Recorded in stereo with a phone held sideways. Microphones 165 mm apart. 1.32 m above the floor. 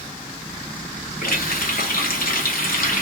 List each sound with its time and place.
1.2 s a running tap: 70° left (ahead or behind), 1.0 m